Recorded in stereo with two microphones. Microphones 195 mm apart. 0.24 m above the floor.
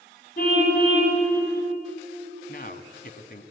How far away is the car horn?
About 9 m.